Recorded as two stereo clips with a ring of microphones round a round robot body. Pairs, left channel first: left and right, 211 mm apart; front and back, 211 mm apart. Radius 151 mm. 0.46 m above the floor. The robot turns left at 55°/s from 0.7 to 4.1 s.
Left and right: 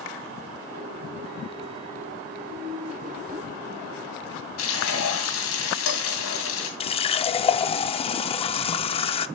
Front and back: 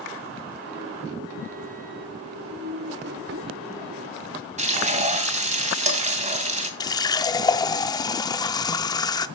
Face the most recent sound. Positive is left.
turn(degrees=55)